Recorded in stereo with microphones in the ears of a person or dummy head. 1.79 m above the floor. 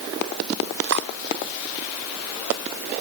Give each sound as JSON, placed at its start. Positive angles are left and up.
{"t": 0.9, "sound": "cutlery clinking", "side_deg": -70}